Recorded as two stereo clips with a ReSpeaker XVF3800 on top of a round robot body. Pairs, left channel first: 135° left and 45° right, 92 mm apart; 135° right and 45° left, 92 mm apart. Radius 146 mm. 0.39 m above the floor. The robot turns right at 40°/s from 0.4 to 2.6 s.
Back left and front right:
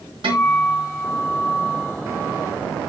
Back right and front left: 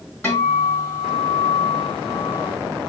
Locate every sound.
0.2 s a guitar: 70° right, 2.5 m; by 2.5 s 15° left, 2.5 m